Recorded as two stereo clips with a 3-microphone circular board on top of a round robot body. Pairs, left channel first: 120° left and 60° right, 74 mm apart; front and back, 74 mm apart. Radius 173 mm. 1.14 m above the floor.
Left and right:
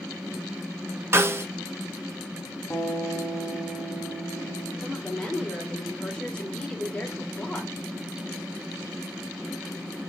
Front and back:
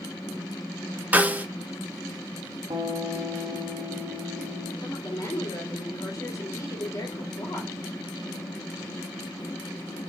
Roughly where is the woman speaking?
Ahead left.